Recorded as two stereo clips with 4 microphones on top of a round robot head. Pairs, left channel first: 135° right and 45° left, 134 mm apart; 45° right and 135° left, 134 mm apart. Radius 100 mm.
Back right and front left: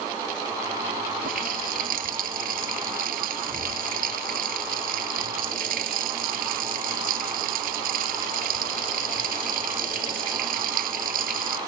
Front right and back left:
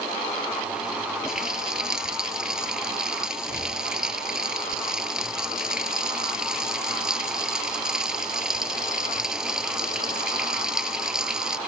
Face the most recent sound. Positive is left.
turn(degrees=50)